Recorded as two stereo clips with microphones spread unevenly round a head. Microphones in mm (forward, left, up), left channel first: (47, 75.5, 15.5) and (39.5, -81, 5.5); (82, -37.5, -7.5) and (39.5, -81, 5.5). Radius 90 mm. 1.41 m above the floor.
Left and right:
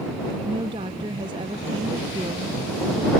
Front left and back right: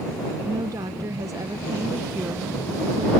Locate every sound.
0.5 s a woman speaking: 160° right